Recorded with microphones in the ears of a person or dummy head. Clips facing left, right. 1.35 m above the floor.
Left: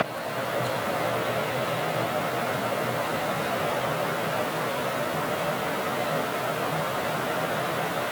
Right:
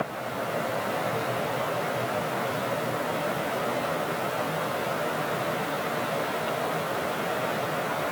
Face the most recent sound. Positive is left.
No sound to turn to.